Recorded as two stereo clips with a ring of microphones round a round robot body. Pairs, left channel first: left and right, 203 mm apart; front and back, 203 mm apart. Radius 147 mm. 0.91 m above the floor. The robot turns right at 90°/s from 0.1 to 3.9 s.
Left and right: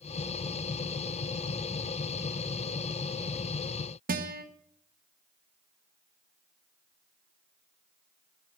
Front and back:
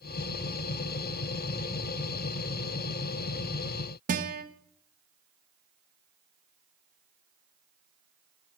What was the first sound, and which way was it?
A guitar, 135° right.